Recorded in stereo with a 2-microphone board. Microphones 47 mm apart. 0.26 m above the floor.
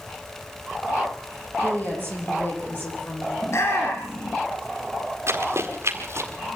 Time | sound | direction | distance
1.6 | a woman speaking | 40° left (ahead or behind) | 9.5 m
3.4 | a shout | 60° left (ahead or behind) | 2.5 m
5.3 | running footsteps | 60° right (ahead or behind) | 4.5 m